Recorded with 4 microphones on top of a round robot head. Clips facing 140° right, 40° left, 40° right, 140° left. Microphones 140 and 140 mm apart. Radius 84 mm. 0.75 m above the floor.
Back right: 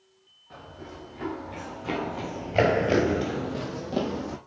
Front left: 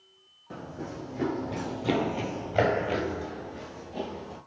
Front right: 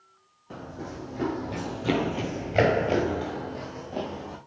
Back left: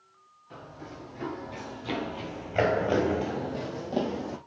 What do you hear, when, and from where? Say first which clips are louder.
0.5 s running footsteps: front left 5 dB, front right 6 dB; straight ahead, 2.5 m; by 4.4 s 160° right, 2 m